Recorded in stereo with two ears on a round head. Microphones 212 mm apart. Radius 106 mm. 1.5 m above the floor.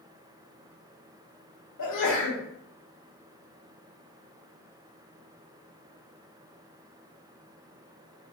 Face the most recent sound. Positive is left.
turn(degrees=70)  # may be behind; listen again after turning